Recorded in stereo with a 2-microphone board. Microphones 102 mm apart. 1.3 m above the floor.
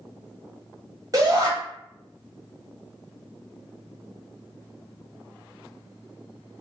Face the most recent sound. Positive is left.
turn(degrees=-35)  # may be behind; listen again after turning